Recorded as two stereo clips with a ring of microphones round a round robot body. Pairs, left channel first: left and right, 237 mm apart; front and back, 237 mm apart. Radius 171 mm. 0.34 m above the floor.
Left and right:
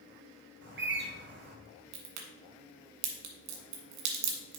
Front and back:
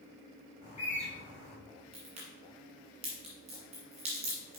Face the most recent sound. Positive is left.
turn(degrees=-110)